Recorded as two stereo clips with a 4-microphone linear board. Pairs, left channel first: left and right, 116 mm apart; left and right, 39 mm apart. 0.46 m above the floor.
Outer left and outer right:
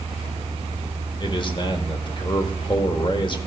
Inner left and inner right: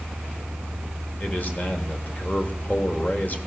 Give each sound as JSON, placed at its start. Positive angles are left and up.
{"t": 1.2, "sound": "a man speaking", "side_deg": 40, "distance_m": 1.4}